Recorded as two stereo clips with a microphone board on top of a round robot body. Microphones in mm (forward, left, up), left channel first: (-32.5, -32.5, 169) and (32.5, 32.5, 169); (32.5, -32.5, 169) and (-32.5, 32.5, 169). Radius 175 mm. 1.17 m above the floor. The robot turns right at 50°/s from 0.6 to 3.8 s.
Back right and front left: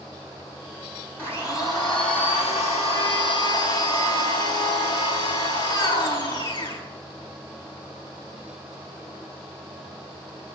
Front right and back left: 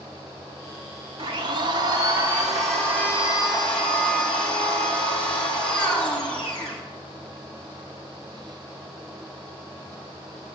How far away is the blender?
About 6.5 m.